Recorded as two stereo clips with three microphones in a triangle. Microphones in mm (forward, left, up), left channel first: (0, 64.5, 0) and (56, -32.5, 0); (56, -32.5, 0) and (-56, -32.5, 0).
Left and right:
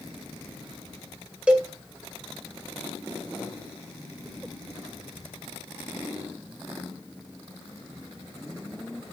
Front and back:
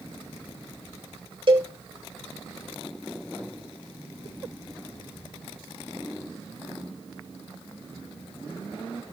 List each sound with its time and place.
1.5 s a cowbell: 140° right, 2.5 m